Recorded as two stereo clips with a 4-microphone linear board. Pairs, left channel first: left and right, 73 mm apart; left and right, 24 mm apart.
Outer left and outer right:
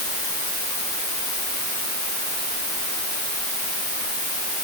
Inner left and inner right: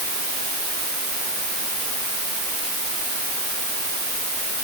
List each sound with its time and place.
Only background noise.